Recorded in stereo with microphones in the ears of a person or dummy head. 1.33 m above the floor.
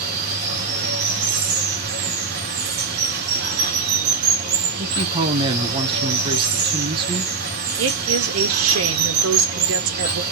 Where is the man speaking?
30° right (ahead or behind), 1.0 m.